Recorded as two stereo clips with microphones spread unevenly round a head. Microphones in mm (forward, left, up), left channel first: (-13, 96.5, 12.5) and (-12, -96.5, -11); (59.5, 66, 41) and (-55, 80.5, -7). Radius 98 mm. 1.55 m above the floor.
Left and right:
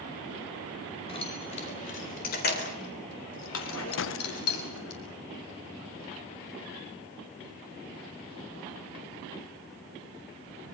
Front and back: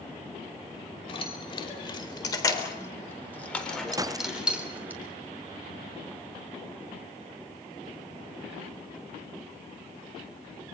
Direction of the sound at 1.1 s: 30° left.